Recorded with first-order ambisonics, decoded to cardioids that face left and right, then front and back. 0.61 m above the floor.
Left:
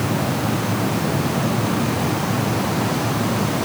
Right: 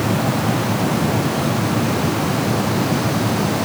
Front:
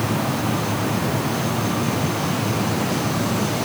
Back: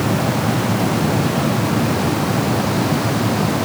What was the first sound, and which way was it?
Only background noise.